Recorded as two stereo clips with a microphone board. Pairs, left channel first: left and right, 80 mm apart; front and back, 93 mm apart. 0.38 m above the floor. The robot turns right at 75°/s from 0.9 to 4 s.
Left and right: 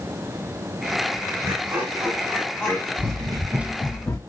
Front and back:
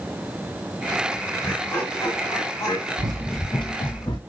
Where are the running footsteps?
160° right, 0.8 m; by 4.2 s 40° left, 1.3 m.